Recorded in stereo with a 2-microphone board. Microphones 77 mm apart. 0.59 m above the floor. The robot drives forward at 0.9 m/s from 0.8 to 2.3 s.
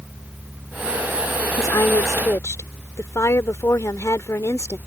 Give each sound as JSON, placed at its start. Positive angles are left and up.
{"t": 1.6, "sound": "a woman speaking", "side_deg": 50}